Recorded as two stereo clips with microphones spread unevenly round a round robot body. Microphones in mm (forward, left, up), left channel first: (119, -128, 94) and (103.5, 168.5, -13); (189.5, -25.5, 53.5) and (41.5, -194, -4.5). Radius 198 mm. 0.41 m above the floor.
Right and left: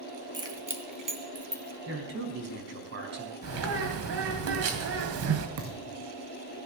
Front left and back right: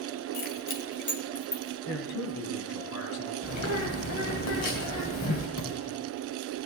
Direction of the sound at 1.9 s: 50° left.